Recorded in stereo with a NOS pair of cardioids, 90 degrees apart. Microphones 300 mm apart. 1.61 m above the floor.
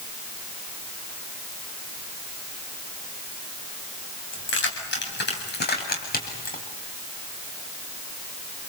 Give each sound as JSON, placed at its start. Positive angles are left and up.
{"t": 4.3, "sound": "keys jangling", "azimuth_deg": 40, "distance_m": 7.5}